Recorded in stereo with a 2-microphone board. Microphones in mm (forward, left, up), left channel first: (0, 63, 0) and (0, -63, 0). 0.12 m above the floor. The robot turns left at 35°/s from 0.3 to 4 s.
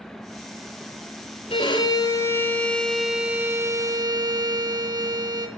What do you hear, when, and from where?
1.5 s a violin: 50° left, 0.9 m; by 5.5 s 40° right, 0.9 m